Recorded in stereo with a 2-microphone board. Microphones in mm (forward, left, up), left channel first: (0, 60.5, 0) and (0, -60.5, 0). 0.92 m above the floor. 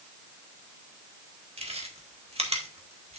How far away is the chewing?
About 1.9 m.